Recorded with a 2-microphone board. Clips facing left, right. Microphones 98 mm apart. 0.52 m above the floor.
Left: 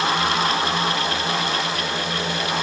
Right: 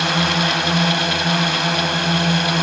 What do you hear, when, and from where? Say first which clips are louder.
0.0 s a drone: right 1 dB; 70° right (ahead or behind)